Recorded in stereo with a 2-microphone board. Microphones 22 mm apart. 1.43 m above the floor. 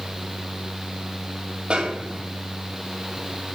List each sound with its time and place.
1.7 s a snare drum: 65° right (ahead or behind), 3 m